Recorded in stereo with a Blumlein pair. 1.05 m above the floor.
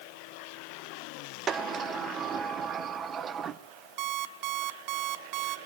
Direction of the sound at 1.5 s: 25° right.